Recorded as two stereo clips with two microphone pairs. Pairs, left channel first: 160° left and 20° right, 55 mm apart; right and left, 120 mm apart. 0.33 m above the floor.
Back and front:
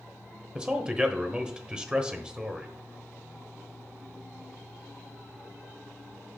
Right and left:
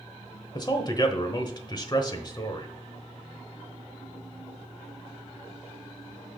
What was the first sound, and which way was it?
A man speaking, 85° right.